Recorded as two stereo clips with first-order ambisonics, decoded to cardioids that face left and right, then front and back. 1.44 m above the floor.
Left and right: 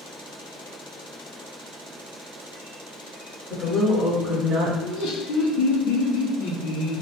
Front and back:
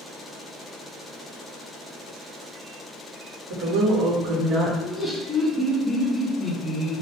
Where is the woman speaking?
165° left, 1.0 m; by 4.7 s 125° right, 0.8 m.